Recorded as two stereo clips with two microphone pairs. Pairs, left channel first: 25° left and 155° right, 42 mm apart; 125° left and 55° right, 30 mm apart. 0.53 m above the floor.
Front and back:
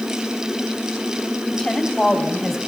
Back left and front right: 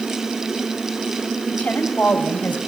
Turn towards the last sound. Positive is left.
turn(degrees=105)